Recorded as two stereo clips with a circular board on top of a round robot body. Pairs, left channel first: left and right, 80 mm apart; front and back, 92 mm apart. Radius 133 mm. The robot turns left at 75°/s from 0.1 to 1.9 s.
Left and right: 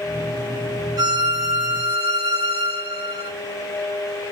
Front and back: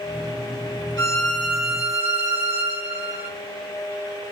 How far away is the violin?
About 3.5 m.